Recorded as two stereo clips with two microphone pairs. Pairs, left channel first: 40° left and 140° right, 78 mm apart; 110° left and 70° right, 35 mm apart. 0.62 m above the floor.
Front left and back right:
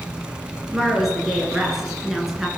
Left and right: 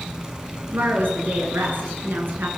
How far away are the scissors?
No scissors in this recording.